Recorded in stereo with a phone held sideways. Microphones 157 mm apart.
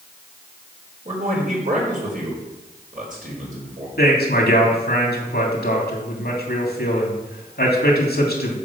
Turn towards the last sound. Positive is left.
turn(degrees=70)  # may be behind; listen again after turning